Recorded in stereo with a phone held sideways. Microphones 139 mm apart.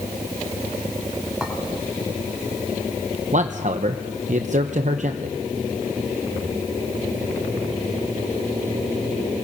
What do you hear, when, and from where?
1.4 s a clink: 5° right (ahead or behind), 3.5 m
3.3 s a man speaking: 55° right (ahead or behind), 0.8 m